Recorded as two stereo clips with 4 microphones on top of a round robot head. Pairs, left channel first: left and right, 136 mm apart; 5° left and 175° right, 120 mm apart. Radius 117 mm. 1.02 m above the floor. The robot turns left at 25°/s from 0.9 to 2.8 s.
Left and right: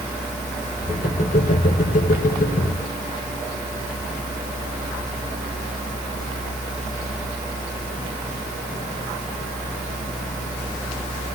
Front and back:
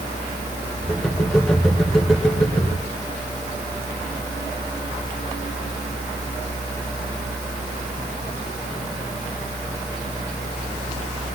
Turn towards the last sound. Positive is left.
No sound to turn to.